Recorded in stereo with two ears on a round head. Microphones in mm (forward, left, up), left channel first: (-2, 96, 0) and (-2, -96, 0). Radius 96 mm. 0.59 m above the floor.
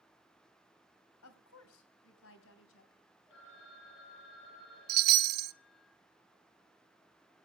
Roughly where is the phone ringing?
Left.